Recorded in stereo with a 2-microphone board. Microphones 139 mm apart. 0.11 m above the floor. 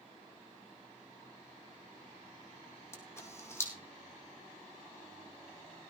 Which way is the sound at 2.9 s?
20° left (ahead or behind).